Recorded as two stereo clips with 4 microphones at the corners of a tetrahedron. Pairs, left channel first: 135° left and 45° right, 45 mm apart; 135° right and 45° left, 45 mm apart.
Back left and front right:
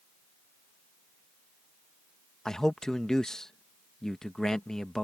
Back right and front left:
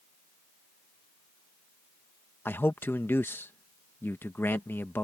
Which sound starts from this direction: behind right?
A man speaking, at 2.5 s.